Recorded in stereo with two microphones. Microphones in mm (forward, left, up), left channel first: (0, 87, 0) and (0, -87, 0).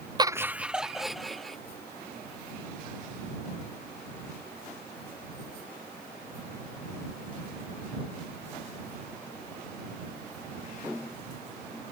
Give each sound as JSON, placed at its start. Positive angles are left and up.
{"t": 0.2, "sound": "laughter", "side_deg": -25}